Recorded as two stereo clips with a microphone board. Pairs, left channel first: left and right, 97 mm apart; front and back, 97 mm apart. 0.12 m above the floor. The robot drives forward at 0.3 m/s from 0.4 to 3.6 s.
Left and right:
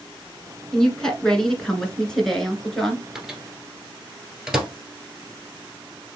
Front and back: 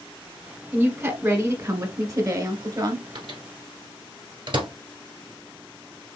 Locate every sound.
0.7 s a woman speaking: 165° left, 1.5 m; by 3.0 s 170° left, 1.9 m
3.1 s a microwave: 175° right, 1.3 m